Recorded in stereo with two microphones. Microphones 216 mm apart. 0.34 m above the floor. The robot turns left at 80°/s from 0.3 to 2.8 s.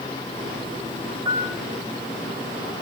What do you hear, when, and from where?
1.2 s a piano: 20° right (ahead or behind), 0.7 m; by 1.5 s 10° right (ahead or behind), 0.7 m